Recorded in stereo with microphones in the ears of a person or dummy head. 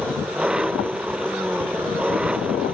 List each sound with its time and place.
0.0 s an engine running: 5° right (ahead or behind)